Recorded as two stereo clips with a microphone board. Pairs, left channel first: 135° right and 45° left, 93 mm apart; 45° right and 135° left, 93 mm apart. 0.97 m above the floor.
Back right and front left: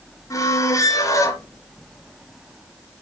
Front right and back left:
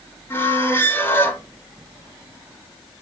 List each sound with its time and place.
0.3 s a squeak: 100° right, 1.0 m